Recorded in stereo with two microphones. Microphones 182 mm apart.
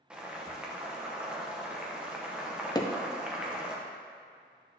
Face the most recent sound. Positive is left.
turn(degrees=20)  # may be behind; listen again after turning